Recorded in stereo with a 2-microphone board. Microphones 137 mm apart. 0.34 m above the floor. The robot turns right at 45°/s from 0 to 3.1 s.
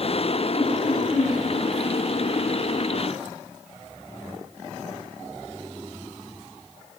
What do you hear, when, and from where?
0.5 s laughter: 125° left, 8.5 m; by 1.4 s 165° left, 8.5 m